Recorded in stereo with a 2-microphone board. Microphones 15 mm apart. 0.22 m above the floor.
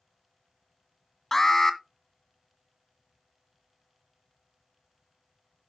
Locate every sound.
1.3 s an alarm: 25° left (ahead or behind), 1.6 m